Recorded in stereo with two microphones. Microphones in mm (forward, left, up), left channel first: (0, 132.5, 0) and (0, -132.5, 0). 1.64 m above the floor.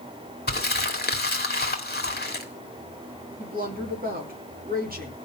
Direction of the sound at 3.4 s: 35° right (ahead or behind).